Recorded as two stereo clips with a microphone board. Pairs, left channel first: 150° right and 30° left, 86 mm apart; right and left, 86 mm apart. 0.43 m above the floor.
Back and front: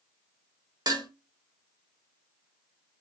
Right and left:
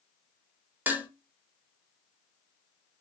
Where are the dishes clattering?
25° left, 0.9 m.